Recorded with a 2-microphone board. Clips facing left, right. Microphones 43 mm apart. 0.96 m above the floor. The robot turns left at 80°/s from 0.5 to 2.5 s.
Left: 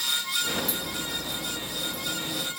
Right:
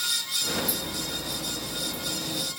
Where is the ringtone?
I don't hear a ringtone.